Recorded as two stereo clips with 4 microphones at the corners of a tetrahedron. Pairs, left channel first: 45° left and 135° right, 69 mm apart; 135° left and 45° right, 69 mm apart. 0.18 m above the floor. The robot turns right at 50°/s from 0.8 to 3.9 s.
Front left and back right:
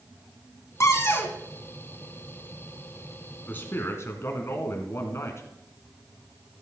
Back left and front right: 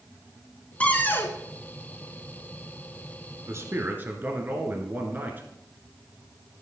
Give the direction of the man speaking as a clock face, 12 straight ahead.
12 o'clock.